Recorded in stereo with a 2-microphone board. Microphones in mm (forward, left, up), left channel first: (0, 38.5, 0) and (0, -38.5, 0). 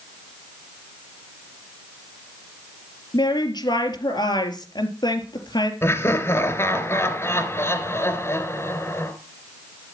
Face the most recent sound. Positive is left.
turn(degrees=35)  # may be behind; listen again after turning